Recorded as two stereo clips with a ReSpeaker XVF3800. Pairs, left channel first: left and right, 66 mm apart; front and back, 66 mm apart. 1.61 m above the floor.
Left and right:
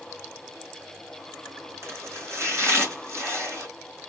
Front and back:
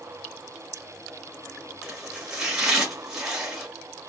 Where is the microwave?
No microwave in this recording.